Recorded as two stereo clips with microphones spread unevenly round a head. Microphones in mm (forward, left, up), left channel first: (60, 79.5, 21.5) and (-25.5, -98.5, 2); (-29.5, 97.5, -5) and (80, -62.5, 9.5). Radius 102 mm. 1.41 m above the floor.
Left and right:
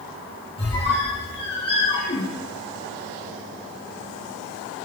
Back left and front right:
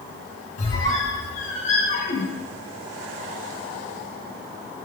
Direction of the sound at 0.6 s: 95° left.